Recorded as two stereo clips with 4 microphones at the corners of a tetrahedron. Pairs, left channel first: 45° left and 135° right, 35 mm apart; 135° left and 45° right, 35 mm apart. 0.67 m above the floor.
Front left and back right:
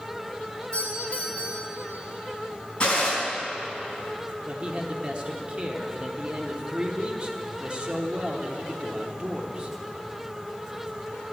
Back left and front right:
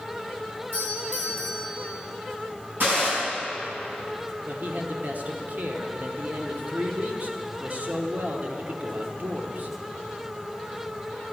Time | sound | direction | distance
0.7 | a doorbell | 5° right | 4.5 m
2.8 | a gunshot | 15° right | 4.5 m
4.5 | a man speaking | 80° right | 1.2 m